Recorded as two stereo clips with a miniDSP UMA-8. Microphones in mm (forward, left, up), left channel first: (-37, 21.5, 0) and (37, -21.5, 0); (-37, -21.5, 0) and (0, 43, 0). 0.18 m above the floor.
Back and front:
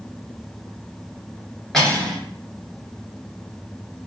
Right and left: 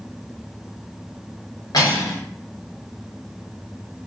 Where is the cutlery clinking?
125° right, 1.4 m.